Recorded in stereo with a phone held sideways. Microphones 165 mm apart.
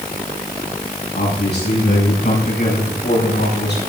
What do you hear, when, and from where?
1.1 s a man speaking: 85° left, 8 m; by 3.8 s 80° left, 6 m